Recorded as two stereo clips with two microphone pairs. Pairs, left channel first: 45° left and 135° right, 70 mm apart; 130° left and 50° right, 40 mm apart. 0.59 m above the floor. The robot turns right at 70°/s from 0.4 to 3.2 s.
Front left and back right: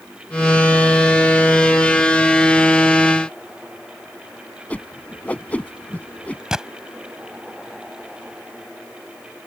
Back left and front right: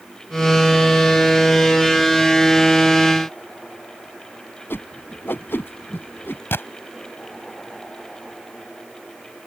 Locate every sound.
4.7 s a whoosh: 110° left
6.5 s a gunshot: 140° left